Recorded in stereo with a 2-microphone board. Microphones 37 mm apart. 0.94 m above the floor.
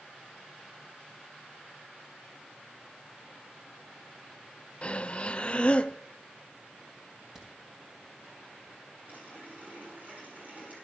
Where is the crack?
15° right (ahead or behind), 3.5 m.